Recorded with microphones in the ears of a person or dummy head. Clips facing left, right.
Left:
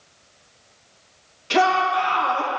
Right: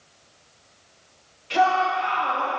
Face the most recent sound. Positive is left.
turn(degrees=75)  # may be behind; listen again after turning